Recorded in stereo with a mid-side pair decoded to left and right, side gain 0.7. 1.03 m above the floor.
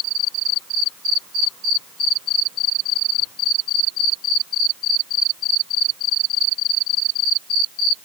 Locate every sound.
Only background noise.